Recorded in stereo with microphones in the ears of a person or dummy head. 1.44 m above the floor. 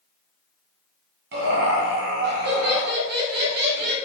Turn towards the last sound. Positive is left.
turn(degrees=-60)  # may be behind; listen again after turning